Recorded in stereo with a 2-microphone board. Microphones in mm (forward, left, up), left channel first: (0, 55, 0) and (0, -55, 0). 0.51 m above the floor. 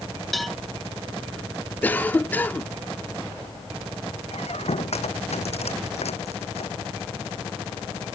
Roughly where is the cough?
Centre.